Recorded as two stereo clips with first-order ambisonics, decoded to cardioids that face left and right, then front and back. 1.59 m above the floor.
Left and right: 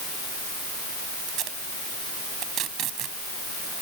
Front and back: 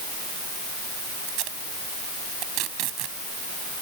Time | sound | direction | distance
1.3 | tape being pulled | 140° right | ?